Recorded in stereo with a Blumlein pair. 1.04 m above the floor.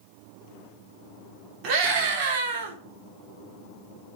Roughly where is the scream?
Ahead right.